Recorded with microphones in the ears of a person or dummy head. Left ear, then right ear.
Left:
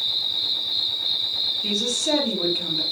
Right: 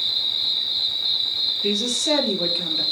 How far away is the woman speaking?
About 1.8 m.